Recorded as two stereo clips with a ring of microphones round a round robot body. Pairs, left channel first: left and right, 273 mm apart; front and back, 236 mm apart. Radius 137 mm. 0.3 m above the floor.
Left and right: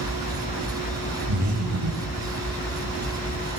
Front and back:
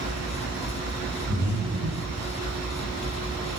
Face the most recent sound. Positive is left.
turn(degrees=-115)